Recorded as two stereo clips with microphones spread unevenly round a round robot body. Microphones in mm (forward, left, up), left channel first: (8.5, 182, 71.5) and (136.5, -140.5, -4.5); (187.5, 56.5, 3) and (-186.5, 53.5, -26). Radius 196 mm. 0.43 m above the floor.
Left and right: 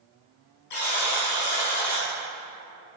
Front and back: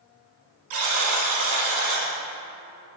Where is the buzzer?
160° left, 1.9 m.